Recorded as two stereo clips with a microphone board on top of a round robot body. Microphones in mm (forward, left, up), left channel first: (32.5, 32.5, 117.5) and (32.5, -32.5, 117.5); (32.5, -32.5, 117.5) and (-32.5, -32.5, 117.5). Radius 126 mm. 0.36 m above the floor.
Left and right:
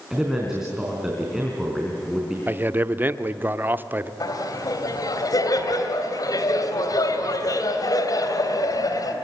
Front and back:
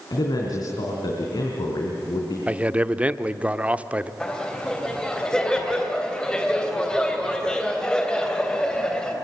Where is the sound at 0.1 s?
10° right, 4 m.